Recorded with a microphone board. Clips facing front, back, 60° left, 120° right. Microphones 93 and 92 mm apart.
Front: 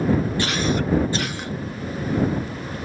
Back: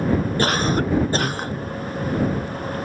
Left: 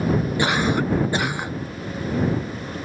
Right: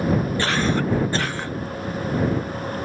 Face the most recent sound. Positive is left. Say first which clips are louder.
# back 2 dB, left 1 dB
turn(degrees=135)